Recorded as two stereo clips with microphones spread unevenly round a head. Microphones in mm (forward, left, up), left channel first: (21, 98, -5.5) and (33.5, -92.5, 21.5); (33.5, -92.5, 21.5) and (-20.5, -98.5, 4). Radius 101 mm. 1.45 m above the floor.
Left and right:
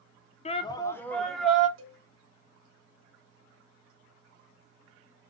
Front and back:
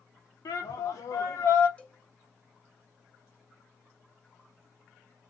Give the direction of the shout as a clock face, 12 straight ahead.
11 o'clock.